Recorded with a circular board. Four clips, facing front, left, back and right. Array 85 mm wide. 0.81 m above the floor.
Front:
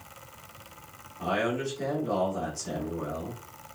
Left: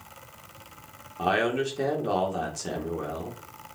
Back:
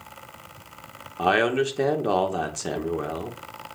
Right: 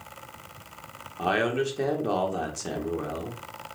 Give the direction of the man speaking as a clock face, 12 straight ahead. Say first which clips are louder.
Even, back 7 dB; 6 o'clock.